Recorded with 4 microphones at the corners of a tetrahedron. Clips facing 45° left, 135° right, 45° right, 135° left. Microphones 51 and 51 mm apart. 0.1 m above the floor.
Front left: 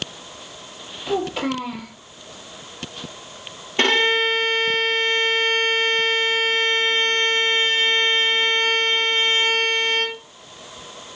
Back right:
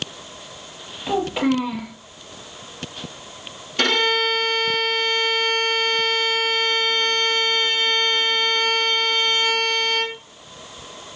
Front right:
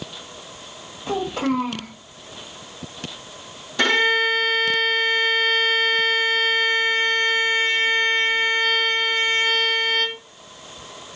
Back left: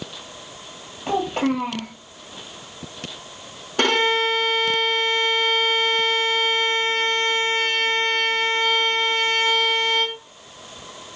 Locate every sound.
1.1 s a child speaking: 160° left, 1.7 m
3.8 s a violin: 105° left, 1.3 m